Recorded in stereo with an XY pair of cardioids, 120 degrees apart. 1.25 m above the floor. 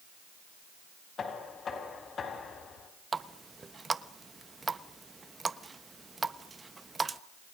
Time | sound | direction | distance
1.2 | knocking | 40° left | 5 m
3.1 | a running tap | 20° right | 1.0 m